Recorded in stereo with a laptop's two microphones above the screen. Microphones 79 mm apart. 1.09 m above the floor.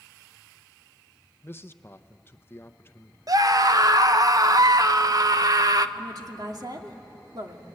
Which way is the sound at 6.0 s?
55° right (ahead or behind).